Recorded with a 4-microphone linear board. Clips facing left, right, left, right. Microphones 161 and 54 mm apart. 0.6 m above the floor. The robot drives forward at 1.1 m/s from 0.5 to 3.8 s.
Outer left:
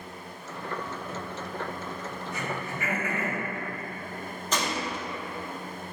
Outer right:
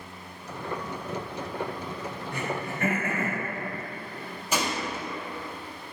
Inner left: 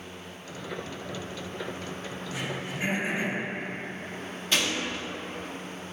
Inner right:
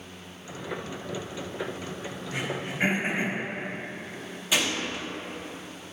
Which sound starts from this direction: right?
Throat clearing, at 2.3 s.